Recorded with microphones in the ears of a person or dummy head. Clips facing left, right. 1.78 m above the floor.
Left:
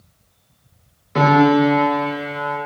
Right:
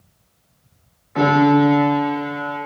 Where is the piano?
50° left (ahead or behind), 2.5 m.